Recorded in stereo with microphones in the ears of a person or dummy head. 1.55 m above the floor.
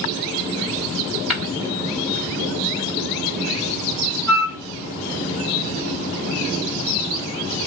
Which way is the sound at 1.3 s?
Centre (ahead or behind).